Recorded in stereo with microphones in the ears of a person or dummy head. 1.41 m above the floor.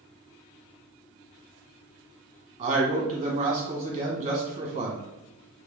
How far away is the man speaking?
About 1.1 m.